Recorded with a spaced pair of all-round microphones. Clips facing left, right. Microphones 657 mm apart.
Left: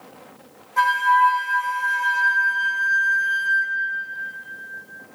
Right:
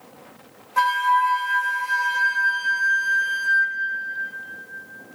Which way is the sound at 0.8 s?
45° right (ahead or behind).